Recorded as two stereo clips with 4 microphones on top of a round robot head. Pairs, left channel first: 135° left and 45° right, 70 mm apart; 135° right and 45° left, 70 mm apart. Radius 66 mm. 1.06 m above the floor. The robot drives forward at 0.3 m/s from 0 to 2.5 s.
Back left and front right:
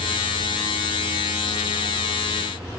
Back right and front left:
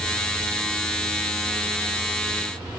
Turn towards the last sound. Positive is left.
No sound to turn to.